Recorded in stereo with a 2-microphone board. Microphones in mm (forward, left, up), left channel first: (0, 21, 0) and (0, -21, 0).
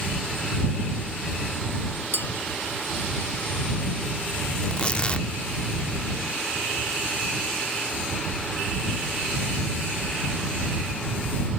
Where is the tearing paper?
25° left (ahead or behind).